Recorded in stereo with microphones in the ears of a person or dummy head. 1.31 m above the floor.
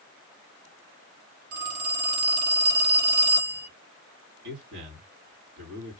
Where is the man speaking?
70° right (ahead or behind), 2.5 m.